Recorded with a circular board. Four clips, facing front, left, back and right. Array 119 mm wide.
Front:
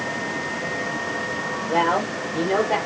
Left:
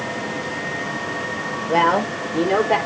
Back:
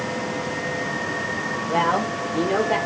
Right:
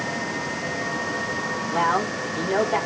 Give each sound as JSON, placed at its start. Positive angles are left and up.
{"t": 1.7, "sound": "a woman speaking", "azimuth_deg": 90, "distance_m": 4.5}